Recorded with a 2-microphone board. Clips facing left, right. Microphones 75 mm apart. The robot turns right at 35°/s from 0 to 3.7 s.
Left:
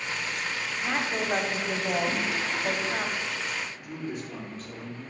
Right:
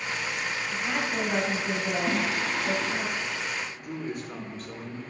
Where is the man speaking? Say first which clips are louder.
Right 1 dB; 50° right (ahead or behind), 1.5 m.